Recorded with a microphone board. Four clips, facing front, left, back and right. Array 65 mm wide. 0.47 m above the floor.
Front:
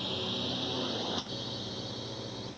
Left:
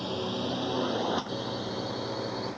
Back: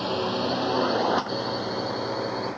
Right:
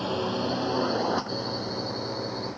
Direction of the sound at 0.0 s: 145° right.